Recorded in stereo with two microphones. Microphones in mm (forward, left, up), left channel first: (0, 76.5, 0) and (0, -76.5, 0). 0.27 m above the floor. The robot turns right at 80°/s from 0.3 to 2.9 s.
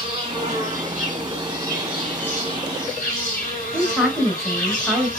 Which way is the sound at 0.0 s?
135° right.